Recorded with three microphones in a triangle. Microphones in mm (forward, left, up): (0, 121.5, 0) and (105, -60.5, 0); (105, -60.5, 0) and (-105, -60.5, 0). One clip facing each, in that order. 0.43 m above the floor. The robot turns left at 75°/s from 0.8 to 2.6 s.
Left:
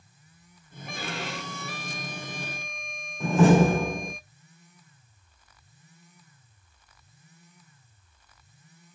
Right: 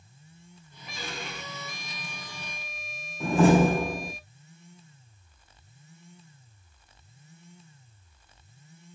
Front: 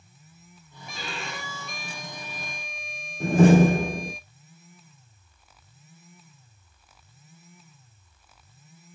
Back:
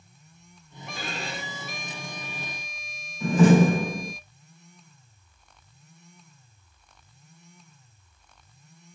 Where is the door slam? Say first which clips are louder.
Left 1 dB, front 1 dB; 30° left, 2 m.